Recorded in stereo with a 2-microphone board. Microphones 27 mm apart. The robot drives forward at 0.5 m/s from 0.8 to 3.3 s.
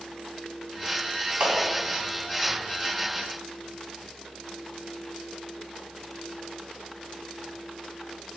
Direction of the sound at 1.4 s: 55° right (ahead or behind).